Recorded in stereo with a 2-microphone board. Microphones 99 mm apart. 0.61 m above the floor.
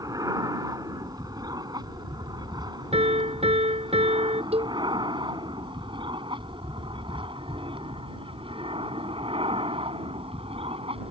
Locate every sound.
0.0 s an aircraft: 40° right (ahead or behind); by 11.1 s 70° right (ahead or behind)
2.9 s a piano: 85° right
4.5 s a cowbell: 85° right